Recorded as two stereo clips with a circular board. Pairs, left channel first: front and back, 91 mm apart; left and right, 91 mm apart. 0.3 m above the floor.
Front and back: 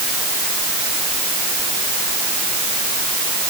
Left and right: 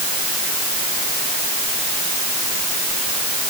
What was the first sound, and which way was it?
Only background noise.